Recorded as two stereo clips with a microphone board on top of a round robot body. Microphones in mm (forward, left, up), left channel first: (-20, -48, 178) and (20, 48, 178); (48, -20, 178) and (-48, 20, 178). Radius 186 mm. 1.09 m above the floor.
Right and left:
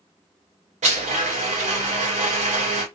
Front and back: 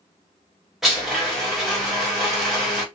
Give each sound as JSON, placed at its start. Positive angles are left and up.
{"t": 0.8, "sound": "a blender", "azimuth_deg": 70, "distance_m": 0.6}